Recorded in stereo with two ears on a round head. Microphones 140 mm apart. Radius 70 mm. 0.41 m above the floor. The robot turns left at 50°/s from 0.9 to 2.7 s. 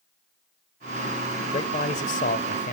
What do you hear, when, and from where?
1.5 s a man speaking: 135° left, 1.3 m; by 2.8 s 75° left, 1.3 m